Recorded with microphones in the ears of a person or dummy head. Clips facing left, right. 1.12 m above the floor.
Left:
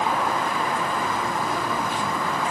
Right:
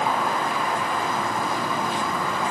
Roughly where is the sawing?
I don't hear sawing.